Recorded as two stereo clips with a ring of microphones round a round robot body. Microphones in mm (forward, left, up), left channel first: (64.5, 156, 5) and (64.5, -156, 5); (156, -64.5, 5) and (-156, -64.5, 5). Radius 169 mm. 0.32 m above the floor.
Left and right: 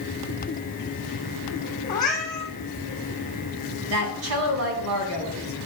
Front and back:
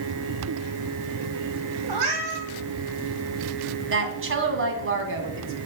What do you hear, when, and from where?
1.9 s a cat meowing: 170° left, 2.5 m
3.9 s a woman speaking: 135° right, 2 m